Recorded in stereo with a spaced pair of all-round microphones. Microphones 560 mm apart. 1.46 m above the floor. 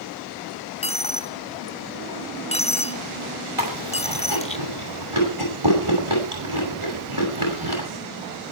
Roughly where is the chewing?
Right.